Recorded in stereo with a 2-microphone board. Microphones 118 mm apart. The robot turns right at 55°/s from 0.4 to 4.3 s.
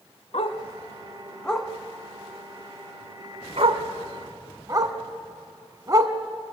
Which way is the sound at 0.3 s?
65° left (ahead or behind).